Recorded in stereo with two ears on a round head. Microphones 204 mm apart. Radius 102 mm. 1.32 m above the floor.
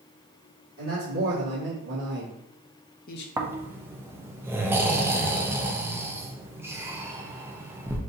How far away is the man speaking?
About 2 m.